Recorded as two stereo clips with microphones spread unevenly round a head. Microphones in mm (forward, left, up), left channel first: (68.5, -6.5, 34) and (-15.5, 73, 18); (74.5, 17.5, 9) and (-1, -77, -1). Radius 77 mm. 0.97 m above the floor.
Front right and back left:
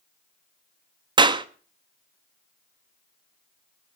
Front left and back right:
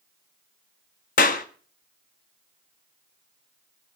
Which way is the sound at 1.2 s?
90° left.